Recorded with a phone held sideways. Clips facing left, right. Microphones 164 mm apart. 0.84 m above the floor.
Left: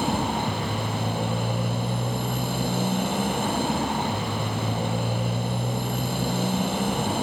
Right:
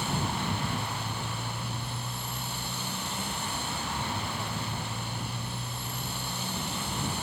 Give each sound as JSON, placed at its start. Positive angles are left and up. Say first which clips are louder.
{"t": 0.0, "sound": "a motorcycle", "louder": "left 7 dB", "side_deg": 70}